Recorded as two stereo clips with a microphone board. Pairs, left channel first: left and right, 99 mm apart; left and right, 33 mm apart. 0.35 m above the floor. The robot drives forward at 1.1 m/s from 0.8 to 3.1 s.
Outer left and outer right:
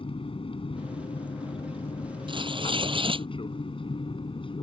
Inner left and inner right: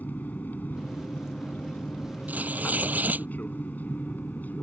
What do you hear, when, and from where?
0.0 s an aircraft: 65° left (ahead or behind); by 4.6 s 60° left (ahead or behind)
2.3 s tearing paper: 55° right (ahead or behind); by 3.3 s 60° right (ahead or behind)